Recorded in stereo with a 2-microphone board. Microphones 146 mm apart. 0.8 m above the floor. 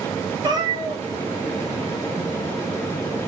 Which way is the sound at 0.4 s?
30° right (ahead or behind).